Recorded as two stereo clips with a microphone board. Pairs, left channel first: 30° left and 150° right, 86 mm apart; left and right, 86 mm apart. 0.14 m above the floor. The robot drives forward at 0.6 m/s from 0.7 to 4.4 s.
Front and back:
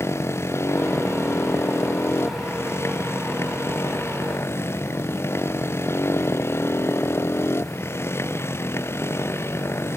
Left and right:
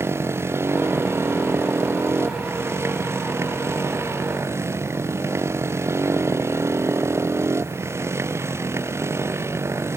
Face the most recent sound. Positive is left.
turn(degrees=-30)